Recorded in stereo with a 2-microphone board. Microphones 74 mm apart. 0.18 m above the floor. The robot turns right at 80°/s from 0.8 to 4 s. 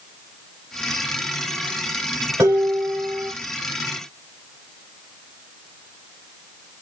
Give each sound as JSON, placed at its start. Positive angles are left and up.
{"t": 2.4, "sound": "dishes clattering", "azimuth_deg": -50, "distance_m": 1.3}